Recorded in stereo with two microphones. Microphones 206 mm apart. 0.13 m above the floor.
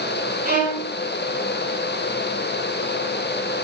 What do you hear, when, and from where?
0.5 s a violin: 50° right (ahead or behind), 3 m